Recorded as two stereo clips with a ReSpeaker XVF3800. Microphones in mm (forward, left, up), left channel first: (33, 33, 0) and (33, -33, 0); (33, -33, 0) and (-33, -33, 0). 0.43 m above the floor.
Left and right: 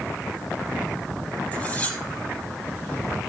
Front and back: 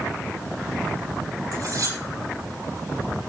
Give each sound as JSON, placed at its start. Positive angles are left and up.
{"t": 1.5, "sound": "cutlery clinking", "azimuth_deg": 155, "distance_m": 9.0}